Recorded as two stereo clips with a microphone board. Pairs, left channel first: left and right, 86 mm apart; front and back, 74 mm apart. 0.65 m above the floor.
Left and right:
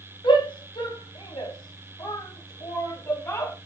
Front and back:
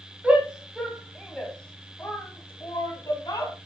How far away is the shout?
About 4 m.